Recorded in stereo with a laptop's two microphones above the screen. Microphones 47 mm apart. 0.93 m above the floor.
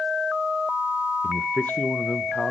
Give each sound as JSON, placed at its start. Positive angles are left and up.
{"t": 1.2, "sound": "a man speaking", "side_deg": 35, "distance_m": 0.6}